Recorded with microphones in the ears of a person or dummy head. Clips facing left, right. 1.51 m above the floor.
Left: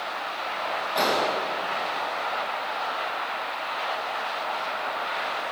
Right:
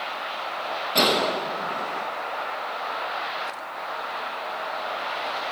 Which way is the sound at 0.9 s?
40° right (ahead or behind).